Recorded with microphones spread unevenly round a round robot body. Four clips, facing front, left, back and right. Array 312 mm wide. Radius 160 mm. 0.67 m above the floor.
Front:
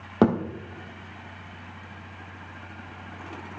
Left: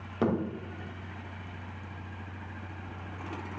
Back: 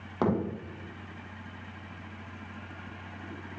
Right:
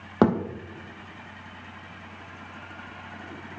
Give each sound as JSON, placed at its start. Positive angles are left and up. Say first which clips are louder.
{"t": 0.2, "sound": "a thud", "louder": "right 7 dB, front 7 dB", "azimuth_deg": -45, "distance_m": 3.0}